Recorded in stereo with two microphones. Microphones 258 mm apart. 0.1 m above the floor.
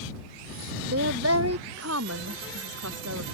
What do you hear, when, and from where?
0.9 s a woman speaking: 65° right (ahead or behind); by 3.2 s 80° right